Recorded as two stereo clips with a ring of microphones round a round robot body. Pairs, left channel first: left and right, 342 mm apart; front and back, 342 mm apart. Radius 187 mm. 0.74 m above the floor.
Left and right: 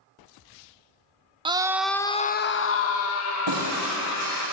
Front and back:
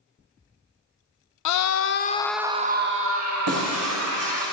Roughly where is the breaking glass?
Behind right.